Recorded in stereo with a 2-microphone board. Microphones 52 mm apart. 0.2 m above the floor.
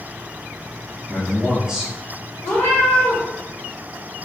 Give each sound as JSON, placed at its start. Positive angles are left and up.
{"t": 1.1, "sound": "a man speaking", "side_deg": -10, "distance_m": 1.3}
{"t": 2.4, "sound": "a cat meowing", "side_deg": 40, "distance_m": 1.2}